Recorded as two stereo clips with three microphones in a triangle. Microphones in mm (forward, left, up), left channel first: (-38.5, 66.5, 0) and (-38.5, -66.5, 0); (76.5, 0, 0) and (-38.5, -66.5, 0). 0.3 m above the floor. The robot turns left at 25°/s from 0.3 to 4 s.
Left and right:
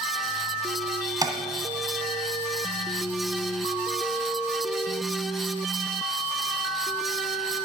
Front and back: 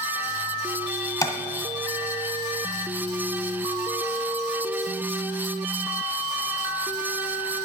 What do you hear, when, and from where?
1.2 s tapping: 30° right, 1.1 m; by 1.4 s 35° right, 1.1 m